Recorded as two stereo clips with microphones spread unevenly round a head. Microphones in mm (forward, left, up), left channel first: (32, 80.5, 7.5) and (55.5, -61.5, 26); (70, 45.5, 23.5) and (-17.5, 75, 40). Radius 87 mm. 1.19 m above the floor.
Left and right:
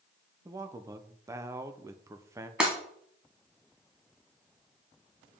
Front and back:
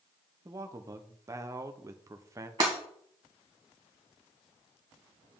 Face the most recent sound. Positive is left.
turn(degrees=-155)